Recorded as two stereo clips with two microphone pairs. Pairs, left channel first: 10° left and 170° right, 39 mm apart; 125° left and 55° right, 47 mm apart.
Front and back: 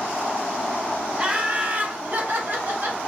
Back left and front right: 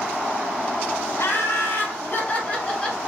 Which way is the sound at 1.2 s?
130° left.